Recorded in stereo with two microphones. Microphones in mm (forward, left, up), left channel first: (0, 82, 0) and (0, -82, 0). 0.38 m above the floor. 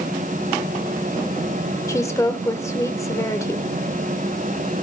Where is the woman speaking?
20° left (ahead or behind), 1.1 m.